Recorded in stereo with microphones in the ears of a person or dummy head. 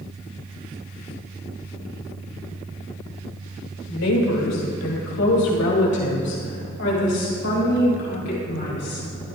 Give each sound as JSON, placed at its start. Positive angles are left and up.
{"t": 3.9, "sound": "a woman speaking", "side_deg": 80, "distance_m": 3.0}